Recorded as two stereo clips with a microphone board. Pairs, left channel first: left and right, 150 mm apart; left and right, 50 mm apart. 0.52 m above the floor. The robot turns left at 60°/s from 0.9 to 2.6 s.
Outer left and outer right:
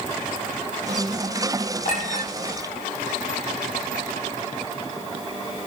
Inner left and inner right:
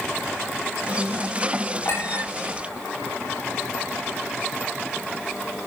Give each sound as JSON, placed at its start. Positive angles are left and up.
{"t": 1.9, "sound": "a clink", "side_deg": 65, "distance_m": 7.0}